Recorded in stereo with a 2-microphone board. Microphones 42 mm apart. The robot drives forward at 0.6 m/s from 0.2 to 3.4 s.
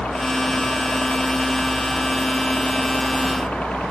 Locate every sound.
0.0 s a helicopter: 35° left (ahead or behind)